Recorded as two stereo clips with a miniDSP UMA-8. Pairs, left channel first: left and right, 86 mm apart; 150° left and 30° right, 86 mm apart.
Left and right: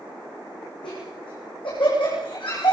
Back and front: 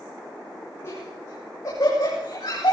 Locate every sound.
0.8 s laughter: 95° left, 8.5 m; by 2.7 s 110° left, 8.5 m